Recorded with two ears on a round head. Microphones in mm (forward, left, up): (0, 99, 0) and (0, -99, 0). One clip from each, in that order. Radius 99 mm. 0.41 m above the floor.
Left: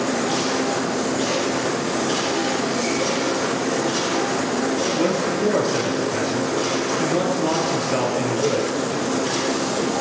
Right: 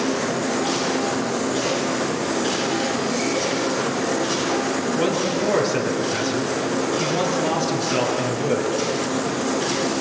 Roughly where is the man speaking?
Centre.